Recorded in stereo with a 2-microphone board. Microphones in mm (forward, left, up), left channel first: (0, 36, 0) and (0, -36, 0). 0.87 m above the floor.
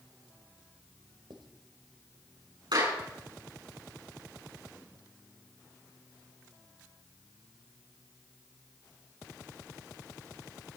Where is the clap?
85° right, 9 m.